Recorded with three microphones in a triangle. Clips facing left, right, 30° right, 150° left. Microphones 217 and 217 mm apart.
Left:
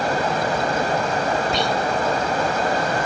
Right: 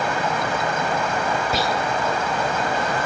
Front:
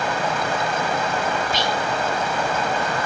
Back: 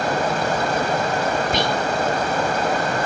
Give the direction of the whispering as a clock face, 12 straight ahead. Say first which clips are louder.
Left 1 dB, back 3 dB; 6 o'clock.